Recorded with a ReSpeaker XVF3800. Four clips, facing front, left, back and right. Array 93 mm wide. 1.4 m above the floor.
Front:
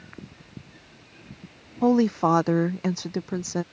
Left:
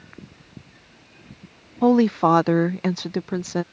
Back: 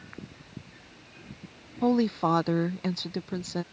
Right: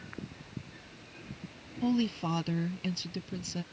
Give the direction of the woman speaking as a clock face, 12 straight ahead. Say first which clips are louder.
Left 13 dB, front 4 dB; 10 o'clock.